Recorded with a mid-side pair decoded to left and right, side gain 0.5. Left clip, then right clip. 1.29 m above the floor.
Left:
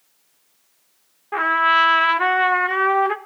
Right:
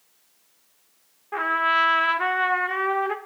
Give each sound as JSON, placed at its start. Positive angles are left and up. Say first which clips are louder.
{"t": 1.3, "sound": "a trumpet", "louder": "left 5 dB", "azimuth_deg": 30, "distance_m": 1.1}